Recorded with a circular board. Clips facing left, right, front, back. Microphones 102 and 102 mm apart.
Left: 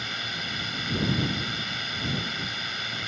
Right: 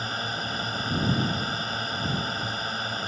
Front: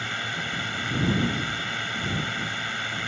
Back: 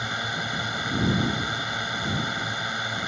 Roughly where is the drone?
Behind right.